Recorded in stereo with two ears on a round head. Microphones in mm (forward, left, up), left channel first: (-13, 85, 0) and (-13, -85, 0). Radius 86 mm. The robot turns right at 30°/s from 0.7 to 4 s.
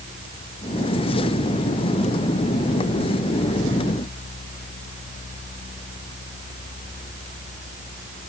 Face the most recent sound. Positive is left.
No sound to turn to.